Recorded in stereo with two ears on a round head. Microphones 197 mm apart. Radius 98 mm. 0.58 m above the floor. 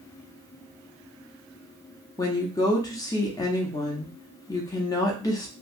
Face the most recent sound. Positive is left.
turn(degrees=15)  # may be behind; listen again after turning